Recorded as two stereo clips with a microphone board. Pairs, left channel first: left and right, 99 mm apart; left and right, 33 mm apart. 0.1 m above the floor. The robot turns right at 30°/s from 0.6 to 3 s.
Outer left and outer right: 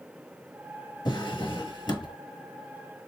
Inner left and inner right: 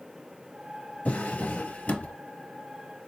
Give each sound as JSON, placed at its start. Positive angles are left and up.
{"t": 1.1, "sound": "a drawer", "azimuth_deg": 70, "distance_m": 1.1}